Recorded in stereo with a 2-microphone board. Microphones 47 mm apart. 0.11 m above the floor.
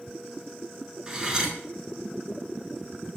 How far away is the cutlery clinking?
About 0.7 m.